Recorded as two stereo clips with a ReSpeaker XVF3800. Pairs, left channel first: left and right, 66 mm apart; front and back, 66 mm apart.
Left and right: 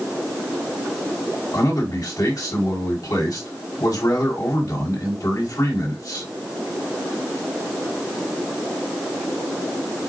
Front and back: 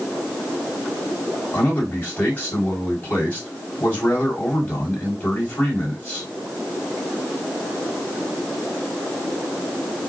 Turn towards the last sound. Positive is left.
turn(degrees=65)